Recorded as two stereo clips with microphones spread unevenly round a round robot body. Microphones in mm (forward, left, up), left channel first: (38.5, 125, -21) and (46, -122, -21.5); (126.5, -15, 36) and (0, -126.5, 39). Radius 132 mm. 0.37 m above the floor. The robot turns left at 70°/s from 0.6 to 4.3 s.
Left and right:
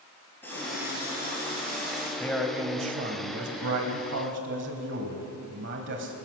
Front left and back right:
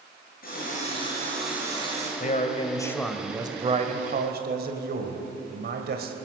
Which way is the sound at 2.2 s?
15° left.